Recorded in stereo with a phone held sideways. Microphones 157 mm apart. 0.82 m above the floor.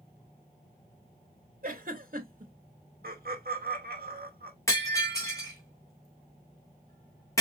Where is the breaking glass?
20° left (ahead or behind), 2.5 m.